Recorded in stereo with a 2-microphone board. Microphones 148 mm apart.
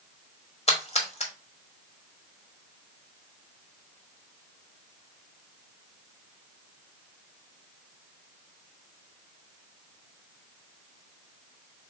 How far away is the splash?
About 1.0 m.